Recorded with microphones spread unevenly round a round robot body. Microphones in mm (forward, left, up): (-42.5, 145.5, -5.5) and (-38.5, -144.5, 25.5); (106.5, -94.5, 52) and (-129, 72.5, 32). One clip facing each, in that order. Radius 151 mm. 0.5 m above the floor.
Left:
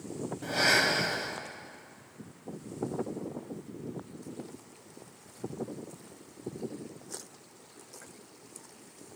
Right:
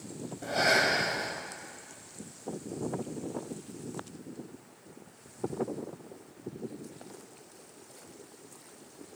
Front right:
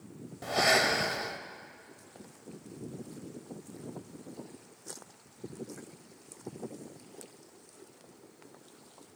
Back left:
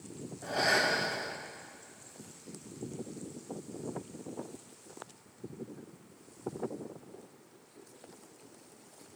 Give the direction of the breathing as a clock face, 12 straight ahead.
12 o'clock.